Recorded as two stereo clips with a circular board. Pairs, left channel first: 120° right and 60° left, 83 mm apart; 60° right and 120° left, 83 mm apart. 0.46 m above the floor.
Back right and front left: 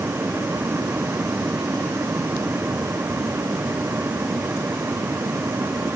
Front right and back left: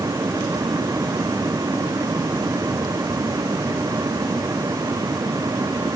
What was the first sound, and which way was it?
Only background noise.